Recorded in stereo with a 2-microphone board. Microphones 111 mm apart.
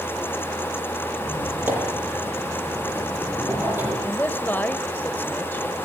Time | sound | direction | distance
1.1 | a squeak | 20° right (ahead or behind) | 8.5 m
4.0 | a man speaking | 20° left (ahead or behind) | 1.1 m